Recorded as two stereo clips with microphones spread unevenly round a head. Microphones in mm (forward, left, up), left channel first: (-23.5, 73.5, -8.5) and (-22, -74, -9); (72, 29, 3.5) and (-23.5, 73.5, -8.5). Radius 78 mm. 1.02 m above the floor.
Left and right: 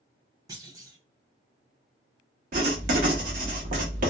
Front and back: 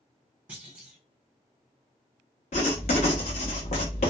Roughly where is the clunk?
Behind right.